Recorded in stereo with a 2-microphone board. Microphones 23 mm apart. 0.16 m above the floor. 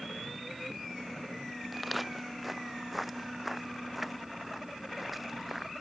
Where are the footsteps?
5° right (ahead or behind).